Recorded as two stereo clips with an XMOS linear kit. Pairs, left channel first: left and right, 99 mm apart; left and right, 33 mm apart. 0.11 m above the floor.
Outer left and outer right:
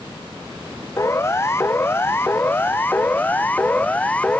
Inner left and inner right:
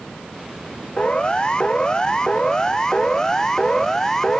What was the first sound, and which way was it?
A siren, 30° left (ahead or behind).